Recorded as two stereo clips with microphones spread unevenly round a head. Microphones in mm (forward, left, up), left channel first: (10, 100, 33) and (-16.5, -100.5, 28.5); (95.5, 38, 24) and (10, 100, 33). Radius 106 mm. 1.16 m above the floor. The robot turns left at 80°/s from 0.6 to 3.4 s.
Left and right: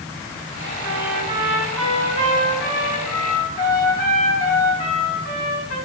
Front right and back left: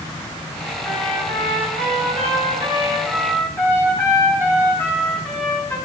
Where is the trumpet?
120° right, 5 m; by 5.8 s 35° left, 5 m.